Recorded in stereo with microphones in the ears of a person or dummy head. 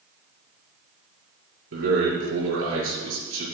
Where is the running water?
No running water in this recording.